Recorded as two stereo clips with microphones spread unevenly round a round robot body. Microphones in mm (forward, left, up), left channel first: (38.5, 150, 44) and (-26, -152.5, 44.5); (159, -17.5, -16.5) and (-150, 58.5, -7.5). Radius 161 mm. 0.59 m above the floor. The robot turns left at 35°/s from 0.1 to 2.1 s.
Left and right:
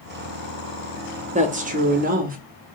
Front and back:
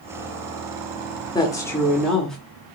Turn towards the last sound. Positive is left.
turn(degrees=-95)